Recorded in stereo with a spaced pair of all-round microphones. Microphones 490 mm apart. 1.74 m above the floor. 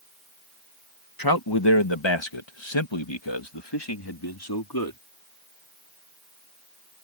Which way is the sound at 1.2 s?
45° left (ahead or behind).